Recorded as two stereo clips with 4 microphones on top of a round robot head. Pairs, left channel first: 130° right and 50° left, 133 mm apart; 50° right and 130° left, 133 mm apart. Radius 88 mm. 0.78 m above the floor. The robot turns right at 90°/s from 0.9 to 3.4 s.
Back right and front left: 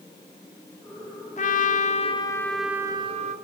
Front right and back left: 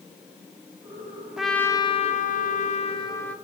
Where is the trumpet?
150° right, 2.5 m; by 3.4 s 30° left, 2.5 m.